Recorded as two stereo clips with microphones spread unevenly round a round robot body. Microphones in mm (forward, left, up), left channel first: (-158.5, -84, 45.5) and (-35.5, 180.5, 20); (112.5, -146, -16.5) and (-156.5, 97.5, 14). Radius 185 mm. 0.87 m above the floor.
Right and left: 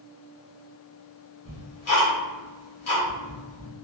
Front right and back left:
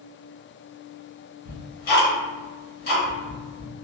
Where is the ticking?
95° right, 1.4 m.